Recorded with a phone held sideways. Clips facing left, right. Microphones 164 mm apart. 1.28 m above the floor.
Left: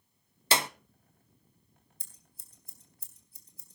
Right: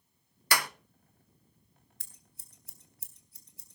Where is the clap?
25° left (ahead or behind), 0.6 m.